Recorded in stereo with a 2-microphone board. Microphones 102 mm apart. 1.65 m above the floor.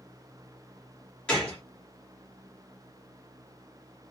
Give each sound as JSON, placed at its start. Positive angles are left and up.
{"t": 1.3, "sound": "a gunshot", "side_deg": 10, "distance_m": 1.6}